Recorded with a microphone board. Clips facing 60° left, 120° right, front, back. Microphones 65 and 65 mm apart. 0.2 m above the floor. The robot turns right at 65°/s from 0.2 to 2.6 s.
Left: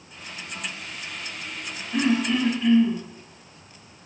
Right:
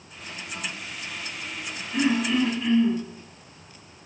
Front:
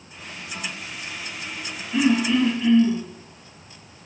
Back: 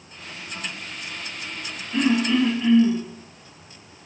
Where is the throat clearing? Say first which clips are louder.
Left 1 dB, front 1 dB; 75° left, 1.9 m; by 3.0 s 115° left, 1.9 m.